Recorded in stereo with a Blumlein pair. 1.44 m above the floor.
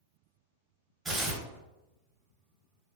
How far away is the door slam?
I don't hear a door slam.